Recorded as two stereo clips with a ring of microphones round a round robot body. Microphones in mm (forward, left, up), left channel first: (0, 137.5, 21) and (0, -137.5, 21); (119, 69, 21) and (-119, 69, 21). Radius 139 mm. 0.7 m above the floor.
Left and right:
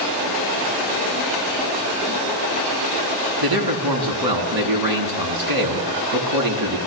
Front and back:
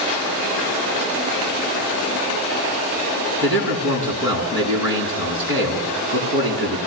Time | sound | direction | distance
3.4 | a man speaking | 105° right | 8 m